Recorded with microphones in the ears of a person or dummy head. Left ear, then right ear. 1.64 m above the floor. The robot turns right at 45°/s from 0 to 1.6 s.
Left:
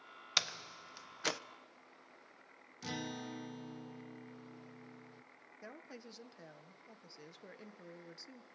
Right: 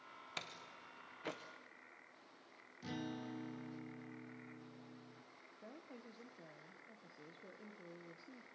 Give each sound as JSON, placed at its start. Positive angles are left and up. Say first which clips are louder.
{"t": 0.4, "sound": "a door slam", "louder": "left 14 dB", "side_deg": 50, "distance_m": 0.8}
{"t": 2.8, "sound": "a guitar", "louder": "left 4 dB", "side_deg": 35, "distance_m": 0.7}
{"t": 5.6, "sound": "a woman speaking", "louder": "left 5 dB", "side_deg": 55, "distance_m": 1.4}